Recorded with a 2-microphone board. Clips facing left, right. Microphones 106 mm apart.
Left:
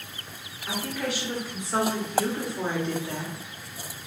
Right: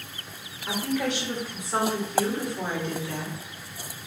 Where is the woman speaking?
20° right (ahead or behind), 1.6 m; by 3.4 s 25° left (ahead or behind), 1.2 m.